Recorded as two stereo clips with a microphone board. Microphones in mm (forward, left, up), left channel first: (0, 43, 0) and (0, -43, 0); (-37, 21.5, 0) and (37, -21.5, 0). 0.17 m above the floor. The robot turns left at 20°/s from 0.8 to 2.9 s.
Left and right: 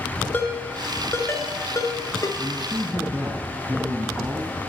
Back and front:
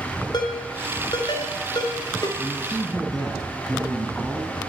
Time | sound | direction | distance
0.3 | a ringtone | 150° left | 1.5 m
2.4 | a man speaking | 110° right | 1.2 m